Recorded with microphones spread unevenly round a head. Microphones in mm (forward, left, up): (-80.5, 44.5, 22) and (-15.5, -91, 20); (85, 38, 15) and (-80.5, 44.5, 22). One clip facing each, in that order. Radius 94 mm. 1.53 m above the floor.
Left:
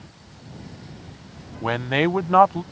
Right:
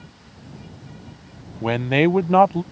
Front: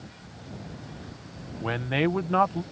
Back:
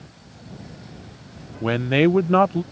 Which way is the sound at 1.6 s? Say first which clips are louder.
Right 4 dB, back 8 dB; 135° right.